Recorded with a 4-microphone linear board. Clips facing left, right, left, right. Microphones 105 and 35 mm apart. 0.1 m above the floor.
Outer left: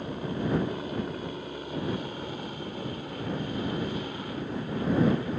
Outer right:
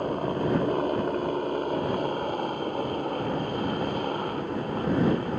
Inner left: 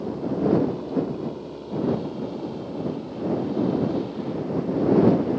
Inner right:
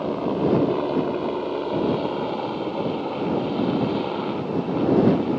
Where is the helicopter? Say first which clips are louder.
Outer right 5 dB, inner right 2 dB; 50° right (ahead or behind).